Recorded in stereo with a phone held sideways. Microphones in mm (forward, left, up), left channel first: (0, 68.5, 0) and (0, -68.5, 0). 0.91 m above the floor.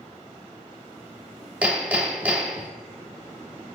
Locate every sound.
1.6 s hammering: 10° right (ahead or behind), 0.9 m